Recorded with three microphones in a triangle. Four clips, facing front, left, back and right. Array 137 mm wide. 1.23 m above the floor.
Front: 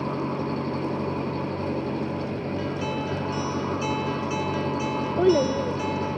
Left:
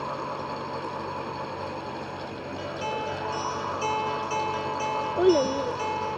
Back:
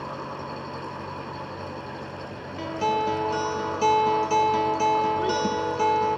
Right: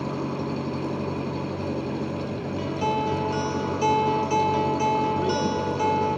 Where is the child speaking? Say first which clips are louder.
Left 3 dB, front 4 dB; 40° left.